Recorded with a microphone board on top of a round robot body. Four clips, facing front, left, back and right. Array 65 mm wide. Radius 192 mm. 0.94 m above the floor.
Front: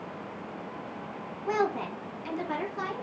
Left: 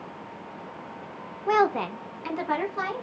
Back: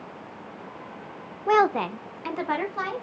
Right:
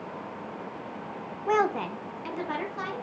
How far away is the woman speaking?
About 0.8 m.